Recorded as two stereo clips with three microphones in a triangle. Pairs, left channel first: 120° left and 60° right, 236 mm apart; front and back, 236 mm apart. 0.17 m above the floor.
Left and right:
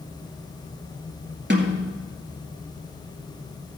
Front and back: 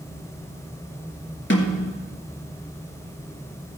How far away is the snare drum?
About 2 m.